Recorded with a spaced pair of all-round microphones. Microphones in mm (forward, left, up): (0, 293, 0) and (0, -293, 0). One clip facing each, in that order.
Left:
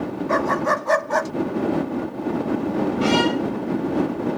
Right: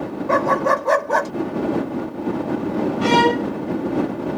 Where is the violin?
10° left (ahead or behind).